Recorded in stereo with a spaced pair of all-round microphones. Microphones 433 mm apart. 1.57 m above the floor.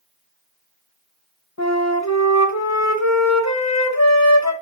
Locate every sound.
1.6 s a flute: 40° left (ahead or behind), 0.9 m